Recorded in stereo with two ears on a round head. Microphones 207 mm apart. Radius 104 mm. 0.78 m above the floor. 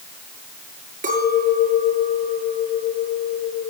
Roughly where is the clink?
Right.